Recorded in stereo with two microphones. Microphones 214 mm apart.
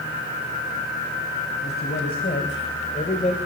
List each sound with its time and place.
1.6 s a man speaking: 55° left (ahead or behind), 4 m; by 3.4 s 35° left (ahead or behind), 3 m